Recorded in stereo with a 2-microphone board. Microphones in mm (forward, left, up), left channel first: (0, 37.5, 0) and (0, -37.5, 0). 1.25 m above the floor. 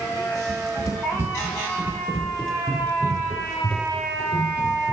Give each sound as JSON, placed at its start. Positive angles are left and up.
{"t": 0.5, "sound": "running footsteps", "side_deg": 45, "distance_m": 1.9}